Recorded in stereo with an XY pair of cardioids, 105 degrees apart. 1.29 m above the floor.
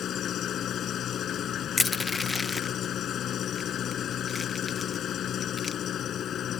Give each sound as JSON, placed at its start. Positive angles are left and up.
{"t": 0.0, "sound": "an engine running", "azimuth_deg": 65}
{"t": 1.8, "sound": "crushing", "azimuth_deg": 25}